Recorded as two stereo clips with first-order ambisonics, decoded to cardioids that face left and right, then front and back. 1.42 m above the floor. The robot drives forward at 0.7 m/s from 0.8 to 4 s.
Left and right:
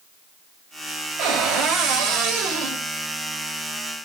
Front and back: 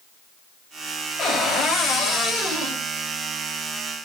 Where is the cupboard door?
55° right, 3 m; by 2.8 s 80° right, 2.5 m.